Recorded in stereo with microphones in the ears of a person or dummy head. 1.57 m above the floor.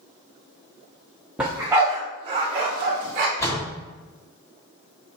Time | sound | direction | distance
1.4 | a dog barking | 10° right (ahead or behind) | 1.1 m
3.4 | a door slam | 15° left (ahead or behind) | 1.3 m